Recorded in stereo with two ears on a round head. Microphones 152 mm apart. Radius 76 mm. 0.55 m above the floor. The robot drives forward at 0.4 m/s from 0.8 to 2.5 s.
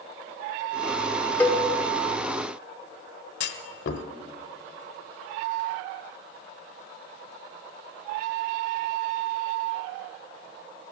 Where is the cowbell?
10° left (ahead or behind), 1.5 m.